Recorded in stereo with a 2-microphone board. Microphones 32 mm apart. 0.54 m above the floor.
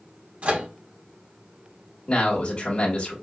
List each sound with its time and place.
0.4 s a microwave: 55° right (ahead or behind), 1.2 m
2.1 s a man speaking: 35° left (ahead or behind), 1.9 m